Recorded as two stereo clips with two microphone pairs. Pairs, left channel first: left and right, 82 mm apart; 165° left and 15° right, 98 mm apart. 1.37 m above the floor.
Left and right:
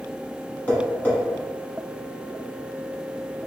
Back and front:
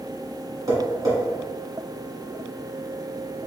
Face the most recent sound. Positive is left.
turn(degrees=30)